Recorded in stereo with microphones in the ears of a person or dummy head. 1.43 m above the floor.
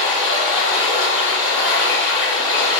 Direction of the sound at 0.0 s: 30° left (ahead or behind).